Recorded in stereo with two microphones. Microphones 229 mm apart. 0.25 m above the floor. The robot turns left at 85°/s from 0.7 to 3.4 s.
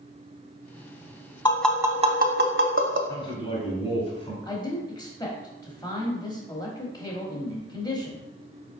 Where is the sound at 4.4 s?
20° left (ahead or behind), 0.9 m.